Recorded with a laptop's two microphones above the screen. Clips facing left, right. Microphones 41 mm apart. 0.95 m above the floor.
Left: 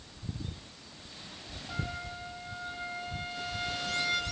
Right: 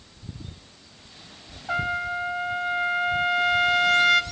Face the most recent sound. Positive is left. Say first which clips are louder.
# right 13 dB
turn(degrees=-60)  # may be behind; listen again after turning